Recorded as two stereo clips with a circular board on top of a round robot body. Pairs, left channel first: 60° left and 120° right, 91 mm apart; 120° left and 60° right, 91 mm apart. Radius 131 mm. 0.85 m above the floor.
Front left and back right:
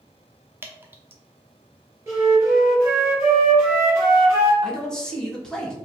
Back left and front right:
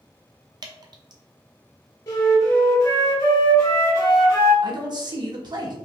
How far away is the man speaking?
About 1.2 m.